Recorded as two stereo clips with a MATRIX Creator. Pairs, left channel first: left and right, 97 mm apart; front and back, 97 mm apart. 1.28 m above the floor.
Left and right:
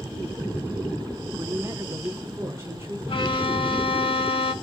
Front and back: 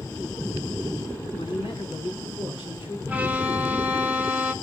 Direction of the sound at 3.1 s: 105° left.